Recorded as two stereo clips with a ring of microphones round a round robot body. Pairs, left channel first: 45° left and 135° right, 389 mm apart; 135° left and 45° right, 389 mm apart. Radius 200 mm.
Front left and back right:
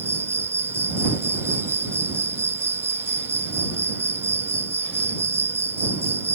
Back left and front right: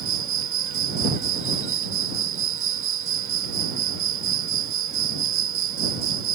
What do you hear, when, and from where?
0.0 s an insect: 55° right